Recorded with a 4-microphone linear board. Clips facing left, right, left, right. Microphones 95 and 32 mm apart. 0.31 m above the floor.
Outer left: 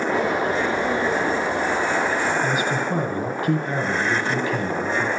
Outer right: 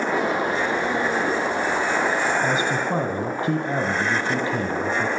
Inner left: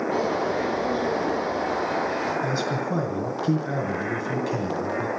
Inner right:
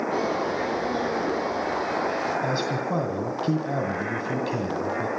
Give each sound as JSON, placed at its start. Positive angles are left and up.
{"t": 0.1, "sound": "a bird", "side_deg": -15, "distance_m": 9.0}
{"t": 2.4, "sound": "a man speaking", "side_deg": -25, "distance_m": 2.0}